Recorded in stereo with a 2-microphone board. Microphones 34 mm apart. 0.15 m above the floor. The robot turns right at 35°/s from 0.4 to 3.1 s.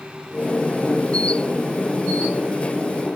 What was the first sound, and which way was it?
Only background noise.